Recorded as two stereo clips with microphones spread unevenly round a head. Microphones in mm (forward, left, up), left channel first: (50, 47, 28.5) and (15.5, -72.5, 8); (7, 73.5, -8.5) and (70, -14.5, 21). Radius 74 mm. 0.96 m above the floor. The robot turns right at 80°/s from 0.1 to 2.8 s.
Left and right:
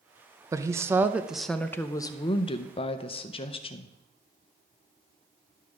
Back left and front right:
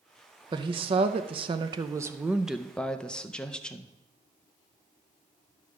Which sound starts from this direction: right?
A woman speaking, at 0.5 s.